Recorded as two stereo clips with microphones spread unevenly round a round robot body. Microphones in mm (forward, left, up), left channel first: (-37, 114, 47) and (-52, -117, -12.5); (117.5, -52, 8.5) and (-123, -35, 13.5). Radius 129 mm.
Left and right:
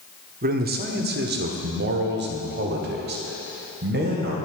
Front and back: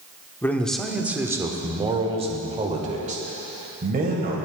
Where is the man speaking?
80° right, 1.1 m; by 4.4 s 130° right, 2.5 m.